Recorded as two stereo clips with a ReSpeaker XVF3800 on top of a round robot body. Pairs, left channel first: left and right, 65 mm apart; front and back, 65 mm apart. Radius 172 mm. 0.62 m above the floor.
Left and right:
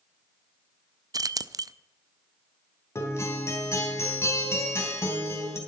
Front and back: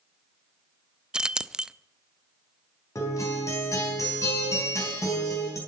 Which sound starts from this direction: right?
Keys jangling, at 1.1 s.